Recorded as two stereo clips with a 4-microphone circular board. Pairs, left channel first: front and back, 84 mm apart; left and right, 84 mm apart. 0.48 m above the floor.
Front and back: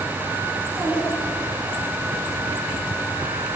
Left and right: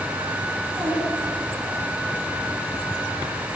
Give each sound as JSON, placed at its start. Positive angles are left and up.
{"t": 0.6, "sound": "a child speaking", "azimuth_deg": -130, "distance_m": 4.0}